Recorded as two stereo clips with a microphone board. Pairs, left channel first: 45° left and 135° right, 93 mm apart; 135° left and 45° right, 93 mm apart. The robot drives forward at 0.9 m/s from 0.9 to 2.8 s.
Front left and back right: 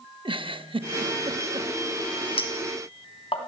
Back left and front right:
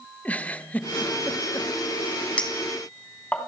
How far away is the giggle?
About 0.8 m.